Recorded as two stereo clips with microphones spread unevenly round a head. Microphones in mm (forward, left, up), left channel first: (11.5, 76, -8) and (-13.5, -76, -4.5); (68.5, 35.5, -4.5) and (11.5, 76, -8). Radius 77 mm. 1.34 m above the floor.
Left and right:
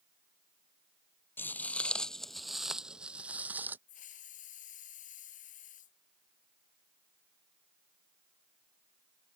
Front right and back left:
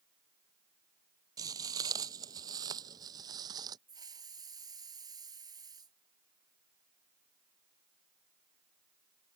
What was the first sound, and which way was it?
Footsteps, 155° left.